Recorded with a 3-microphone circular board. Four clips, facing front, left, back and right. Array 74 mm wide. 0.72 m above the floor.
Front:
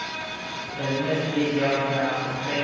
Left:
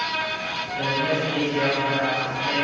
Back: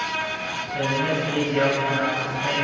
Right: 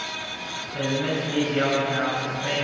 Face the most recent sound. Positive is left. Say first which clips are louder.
# left 1 dB, back 1 dB
turn(degrees=-145)